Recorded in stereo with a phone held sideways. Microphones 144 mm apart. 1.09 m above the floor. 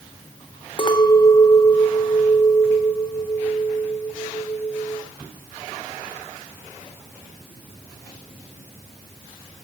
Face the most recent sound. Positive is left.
turn(degrees=35)  # may be behind; listen again after turning